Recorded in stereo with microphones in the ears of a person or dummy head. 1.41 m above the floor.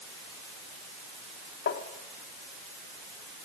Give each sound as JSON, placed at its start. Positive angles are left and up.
{"t": 1.7, "sound": "tapping", "side_deg": 60, "distance_m": 1.9}